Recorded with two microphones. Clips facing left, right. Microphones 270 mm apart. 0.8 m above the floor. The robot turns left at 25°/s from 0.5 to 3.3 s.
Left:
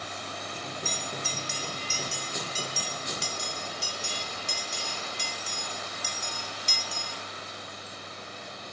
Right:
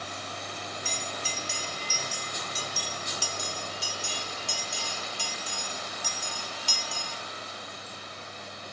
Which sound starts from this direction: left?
A bell, at 0.8 s.